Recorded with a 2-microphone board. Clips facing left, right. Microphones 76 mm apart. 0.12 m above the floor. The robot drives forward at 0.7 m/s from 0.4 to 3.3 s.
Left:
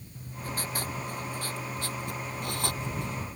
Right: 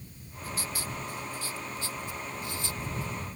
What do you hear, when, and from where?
0.1 s writing: 45° left (ahead or behind); by 3.3 s 65° left (ahead or behind)